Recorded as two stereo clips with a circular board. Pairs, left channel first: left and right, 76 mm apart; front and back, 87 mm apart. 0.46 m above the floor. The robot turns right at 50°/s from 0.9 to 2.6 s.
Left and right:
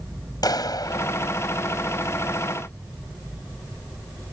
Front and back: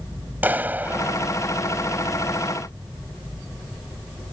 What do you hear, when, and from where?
0.4 s a clap: 110° left; by 1.3 s 130° left